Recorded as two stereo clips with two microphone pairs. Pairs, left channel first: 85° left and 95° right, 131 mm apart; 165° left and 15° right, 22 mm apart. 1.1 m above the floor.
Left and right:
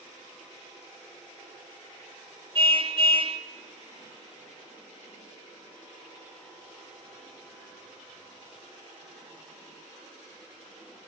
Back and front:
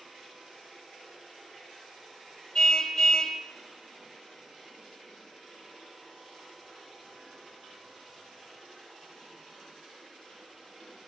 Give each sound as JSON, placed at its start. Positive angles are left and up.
{"t": 2.5, "sound": "a car horn", "azimuth_deg": -140, "distance_m": 2.0}